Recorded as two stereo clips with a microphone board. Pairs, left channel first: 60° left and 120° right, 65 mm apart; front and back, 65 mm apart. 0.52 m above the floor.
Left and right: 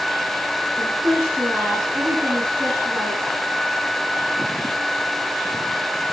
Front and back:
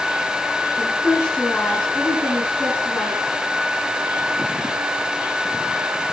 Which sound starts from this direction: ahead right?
A woman speaking, at 0.8 s.